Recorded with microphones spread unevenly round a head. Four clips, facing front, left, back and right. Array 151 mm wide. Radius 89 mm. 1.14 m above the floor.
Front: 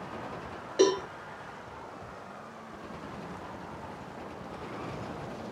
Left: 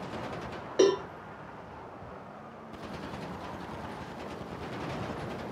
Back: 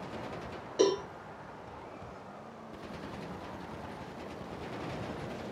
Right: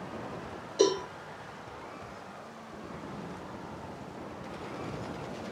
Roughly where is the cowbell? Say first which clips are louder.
Left 2 dB, front 3 dB; ahead left.